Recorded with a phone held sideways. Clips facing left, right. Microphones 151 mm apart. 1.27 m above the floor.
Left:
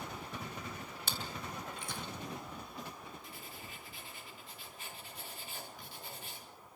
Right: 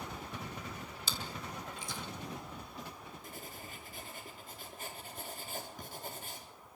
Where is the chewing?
55° left (ahead or behind), 2.5 m.